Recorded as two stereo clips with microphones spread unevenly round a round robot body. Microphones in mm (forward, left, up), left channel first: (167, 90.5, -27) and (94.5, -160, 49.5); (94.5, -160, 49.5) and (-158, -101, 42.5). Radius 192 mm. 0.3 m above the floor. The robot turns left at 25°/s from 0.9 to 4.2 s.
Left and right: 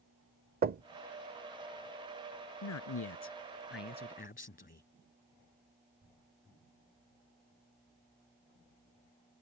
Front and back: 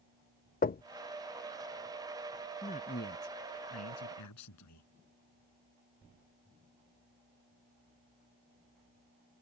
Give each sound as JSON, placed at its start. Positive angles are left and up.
{"t": 0.6, "sound": "knocking", "azimuth_deg": -45}
{"t": 2.6, "sound": "a man speaking", "azimuth_deg": 60}